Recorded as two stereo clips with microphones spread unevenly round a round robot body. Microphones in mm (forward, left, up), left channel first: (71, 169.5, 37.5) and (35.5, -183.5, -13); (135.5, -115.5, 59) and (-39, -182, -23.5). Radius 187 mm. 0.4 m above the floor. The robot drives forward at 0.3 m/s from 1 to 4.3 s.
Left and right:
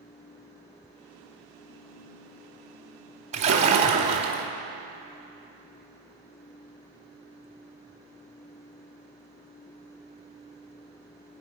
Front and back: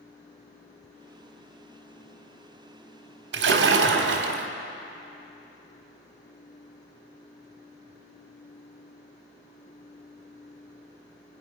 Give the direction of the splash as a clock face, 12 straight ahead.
6 o'clock.